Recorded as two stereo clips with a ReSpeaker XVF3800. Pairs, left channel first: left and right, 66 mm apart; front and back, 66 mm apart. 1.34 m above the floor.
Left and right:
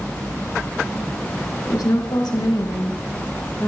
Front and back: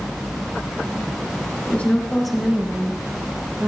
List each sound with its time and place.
1.7 s a woman speaking: 65° left, 1.3 m; by 3.7 s 130° left, 2 m